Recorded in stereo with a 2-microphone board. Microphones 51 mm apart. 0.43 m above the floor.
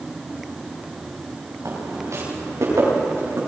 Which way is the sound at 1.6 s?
75° right (ahead or behind).